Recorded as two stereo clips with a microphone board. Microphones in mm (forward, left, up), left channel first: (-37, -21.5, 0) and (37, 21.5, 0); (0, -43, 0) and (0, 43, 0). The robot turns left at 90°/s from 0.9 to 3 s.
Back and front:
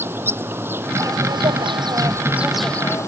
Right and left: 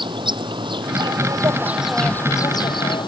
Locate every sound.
0.0 s an insect: 90° left; by 3.1 s 100° right